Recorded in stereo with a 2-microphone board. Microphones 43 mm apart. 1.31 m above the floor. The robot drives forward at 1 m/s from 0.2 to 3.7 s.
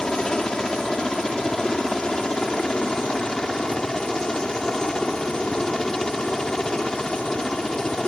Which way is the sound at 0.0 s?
15° left (ahead or behind).